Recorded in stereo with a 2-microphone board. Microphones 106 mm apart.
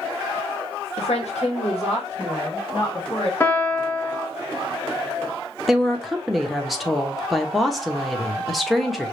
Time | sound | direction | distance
1.0 | a woman speaking | 85° left | 0.9 m
3.4 | a piano | 20° left (ahead or behind) | 0.9 m
5.7 | a woman speaking | centre (ahead or behind) | 1.0 m